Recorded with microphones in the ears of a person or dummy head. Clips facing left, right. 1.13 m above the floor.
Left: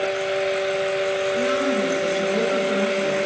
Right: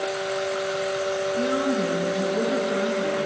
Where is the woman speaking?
85° left, 4.5 m.